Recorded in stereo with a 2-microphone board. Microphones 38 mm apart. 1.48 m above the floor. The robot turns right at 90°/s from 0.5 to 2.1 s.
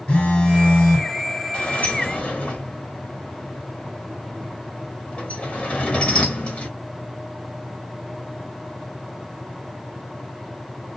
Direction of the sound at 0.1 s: 130° left.